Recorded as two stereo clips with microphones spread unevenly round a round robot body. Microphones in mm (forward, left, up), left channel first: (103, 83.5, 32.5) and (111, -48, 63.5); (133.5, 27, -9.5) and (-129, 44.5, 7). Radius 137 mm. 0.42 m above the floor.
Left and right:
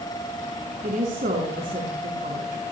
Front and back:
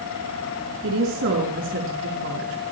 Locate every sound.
0.8 s a woman speaking: 135° right, 5.5 m